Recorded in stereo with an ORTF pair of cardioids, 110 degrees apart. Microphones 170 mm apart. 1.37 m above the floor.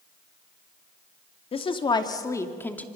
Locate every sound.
1.5 s a woman speaking: 35° left, 2.5 m; by 2.9 s 10° left, 2.5 m